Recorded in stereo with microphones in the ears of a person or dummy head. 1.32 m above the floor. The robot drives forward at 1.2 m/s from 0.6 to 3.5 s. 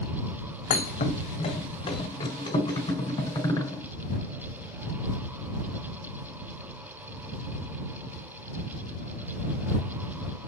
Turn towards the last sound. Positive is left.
turn(degrees=20)  # may be behind; listen again after turning